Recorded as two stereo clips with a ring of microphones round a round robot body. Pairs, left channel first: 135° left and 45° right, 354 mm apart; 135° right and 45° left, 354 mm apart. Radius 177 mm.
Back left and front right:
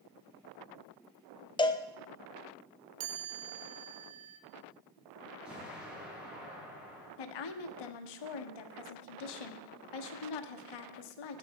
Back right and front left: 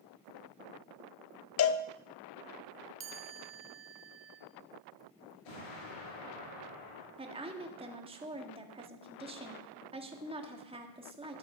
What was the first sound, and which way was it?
A cowbell, 155° right.